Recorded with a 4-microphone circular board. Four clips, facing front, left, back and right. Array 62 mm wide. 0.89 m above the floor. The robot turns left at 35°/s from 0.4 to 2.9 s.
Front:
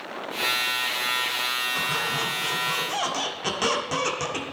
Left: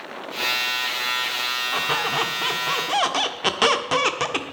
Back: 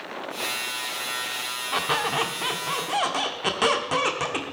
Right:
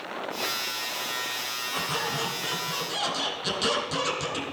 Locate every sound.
1.7 s a squeak: 145° left, 1.4 m; by 4.4 s 105° left, 1.4 m